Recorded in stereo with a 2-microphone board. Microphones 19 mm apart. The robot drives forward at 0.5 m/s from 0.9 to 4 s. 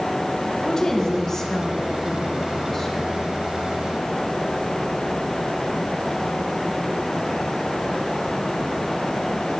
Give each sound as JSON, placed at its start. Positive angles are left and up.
{"t": 0.6, "sound": "a woman speaking", "side_deg": 30, "distance_m": 1.9}